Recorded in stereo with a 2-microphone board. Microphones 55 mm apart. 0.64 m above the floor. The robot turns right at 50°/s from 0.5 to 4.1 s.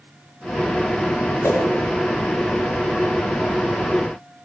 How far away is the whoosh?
About 6 m.